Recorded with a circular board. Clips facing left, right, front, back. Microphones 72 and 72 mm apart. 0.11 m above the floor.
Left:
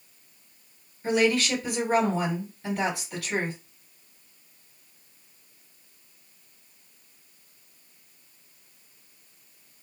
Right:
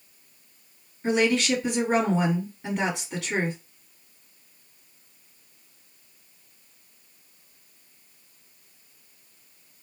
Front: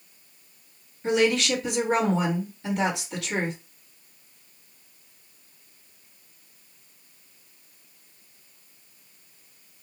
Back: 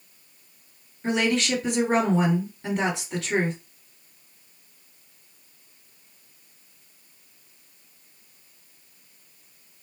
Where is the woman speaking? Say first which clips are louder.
Right 1 dB, front 2 dB; 145° right, 1.9 m.